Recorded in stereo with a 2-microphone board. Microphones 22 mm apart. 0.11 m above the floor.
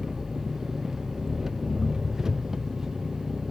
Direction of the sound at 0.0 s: 25° right (ahead or behind).